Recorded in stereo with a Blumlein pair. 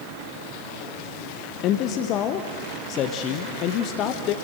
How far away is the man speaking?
About 1.2 m.